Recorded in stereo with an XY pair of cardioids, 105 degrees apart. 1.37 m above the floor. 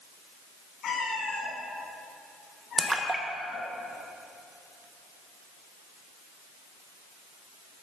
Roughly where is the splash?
Ahead.